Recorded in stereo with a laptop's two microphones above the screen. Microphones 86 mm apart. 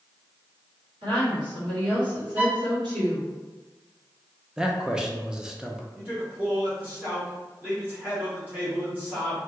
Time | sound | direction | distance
1.0 | a woman speaking | 70° right (ahead or behind) | 1.8 m
2.4 | a violin | 20° right (ahead or behind) | 0.8 m
4.6 | a man speaking | 10° right (ahead or behind) | 0.5 m
6.0 | a man speaking | 20° right (ahead or behind) | 0.9 m